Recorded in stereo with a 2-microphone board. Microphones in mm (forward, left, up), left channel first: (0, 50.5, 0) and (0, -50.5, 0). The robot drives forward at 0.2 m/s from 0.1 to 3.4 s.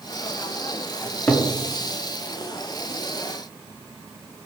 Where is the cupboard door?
15° left (ahead or behind), 0.5 m.